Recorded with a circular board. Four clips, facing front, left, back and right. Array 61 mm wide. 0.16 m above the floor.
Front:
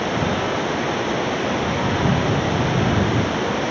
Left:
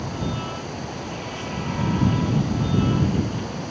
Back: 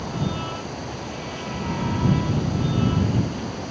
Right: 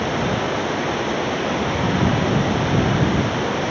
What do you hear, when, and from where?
0.0 s running water: 40° right